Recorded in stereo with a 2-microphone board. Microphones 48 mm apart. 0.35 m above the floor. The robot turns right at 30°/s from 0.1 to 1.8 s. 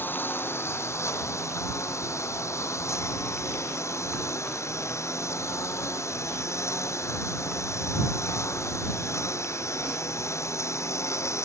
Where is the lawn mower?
45° left; by 11.4 s 95° left.